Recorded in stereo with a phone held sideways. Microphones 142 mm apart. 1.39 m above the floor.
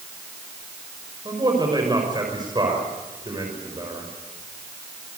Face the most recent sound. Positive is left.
turn(degrees=-30)  # may be behind; listen again after turning